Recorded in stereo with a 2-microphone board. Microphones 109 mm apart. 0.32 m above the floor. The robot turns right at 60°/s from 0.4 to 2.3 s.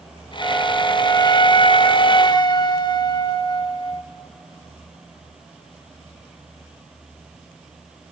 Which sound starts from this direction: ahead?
A flute, at 0.4 s.